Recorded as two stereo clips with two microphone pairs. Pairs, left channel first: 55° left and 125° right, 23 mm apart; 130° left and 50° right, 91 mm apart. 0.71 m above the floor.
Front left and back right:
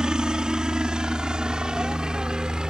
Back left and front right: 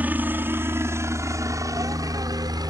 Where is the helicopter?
110° right; by 2.7 s 80° right.